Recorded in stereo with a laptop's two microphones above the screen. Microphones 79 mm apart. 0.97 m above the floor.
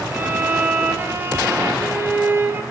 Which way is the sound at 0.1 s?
30° right (ahead or behind).